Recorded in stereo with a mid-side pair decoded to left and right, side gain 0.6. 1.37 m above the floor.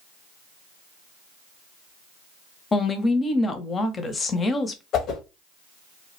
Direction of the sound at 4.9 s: 55° left.